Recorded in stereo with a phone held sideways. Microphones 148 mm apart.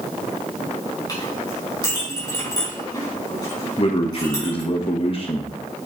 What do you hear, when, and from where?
1.1 s a clink: 30° left (ahead or behind), 5.5 m
3.8 s a man speaking: 40° left (ahead or behind), 1.2 m